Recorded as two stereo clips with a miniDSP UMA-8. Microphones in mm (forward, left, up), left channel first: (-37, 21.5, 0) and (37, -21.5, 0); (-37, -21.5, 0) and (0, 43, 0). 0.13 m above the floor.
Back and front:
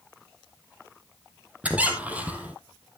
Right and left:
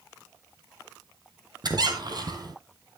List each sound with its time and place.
1.6 s a squeak: 40° left, 1.6 m